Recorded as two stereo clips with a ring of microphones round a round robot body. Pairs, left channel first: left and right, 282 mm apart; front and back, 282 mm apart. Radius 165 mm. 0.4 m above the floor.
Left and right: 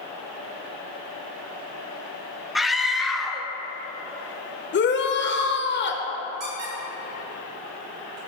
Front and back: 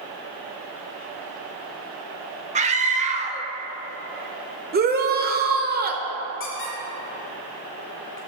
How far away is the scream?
About 0.8 m.